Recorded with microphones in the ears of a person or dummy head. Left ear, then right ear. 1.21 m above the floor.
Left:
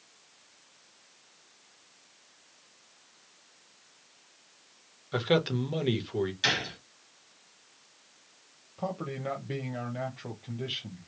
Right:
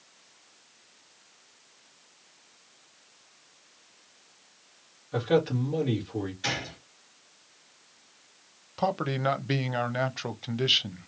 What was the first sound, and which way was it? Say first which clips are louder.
A man speaking: right 2 dB; 40° left (ahead or behind).